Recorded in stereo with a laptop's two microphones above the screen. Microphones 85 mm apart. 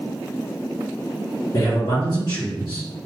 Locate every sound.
1.5 s a man speaking: 55° left (ahead or behind), 1.2 m